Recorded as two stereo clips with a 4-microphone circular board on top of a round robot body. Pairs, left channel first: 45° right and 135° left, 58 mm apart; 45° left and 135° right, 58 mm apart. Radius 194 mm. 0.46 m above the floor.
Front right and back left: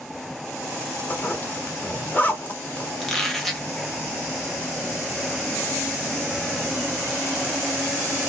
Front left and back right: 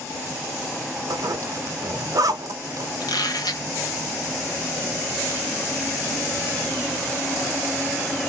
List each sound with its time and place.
1.1 s a zipper: 110° right, 0.7 m
3.0 s a squeak: 40° left, 0.9 m